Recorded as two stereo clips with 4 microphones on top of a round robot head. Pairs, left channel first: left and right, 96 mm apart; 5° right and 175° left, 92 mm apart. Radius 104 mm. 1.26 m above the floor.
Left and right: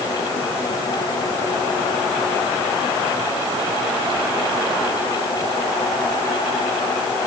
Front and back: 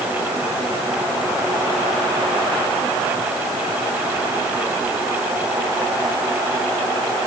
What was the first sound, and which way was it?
Only background noise.